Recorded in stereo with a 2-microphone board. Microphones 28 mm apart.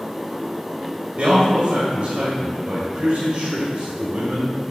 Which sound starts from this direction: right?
A man speaking, at 1.2 s.